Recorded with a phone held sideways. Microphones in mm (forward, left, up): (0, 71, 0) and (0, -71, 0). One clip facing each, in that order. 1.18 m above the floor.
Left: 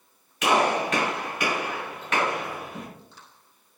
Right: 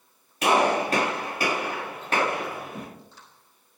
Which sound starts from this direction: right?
A gunshot, at 0.4 s.